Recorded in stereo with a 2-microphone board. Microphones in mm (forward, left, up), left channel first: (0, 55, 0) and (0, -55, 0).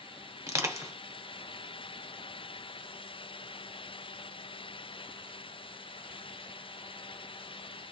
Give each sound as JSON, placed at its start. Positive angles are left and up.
{"t": 0.5, "sound": "crushing", "side_deg": -25, "distance_m": 0.8}